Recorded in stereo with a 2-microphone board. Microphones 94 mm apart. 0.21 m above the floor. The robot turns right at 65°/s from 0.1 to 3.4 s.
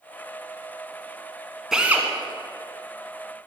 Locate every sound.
1.7 s a drill: 5° right (ahead or behind), 1.6 m; by 2.1 s 25° right (ahead or behind), 1.6 m